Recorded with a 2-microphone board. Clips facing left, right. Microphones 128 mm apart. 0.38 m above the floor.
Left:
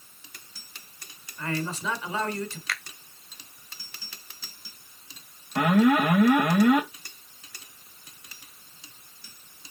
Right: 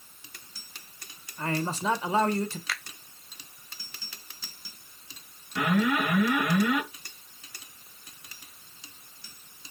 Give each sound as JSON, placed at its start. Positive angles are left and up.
{"t": 1.4, "sound": "a man speaking", "side_deg": -35, "distance_m": 1.5}
{"t": 2.7, "sound": "a finger snap", "side_deg": -5, "distance_m": 1.2}
{"t": 5.5, "sound": "an alarm", "side_deg": 50, "distance_m": 2.0}